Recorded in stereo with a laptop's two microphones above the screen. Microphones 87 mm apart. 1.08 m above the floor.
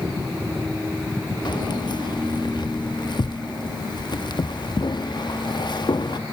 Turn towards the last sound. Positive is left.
turn(degrees=55)  # may be behind; listen again after turning